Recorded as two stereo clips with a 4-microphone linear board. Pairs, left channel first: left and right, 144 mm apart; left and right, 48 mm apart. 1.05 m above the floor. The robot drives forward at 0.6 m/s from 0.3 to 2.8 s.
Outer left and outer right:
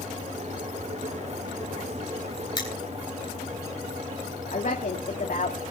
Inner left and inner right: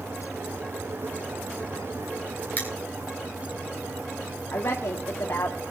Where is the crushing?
30° left (ahead or behind), 4 m.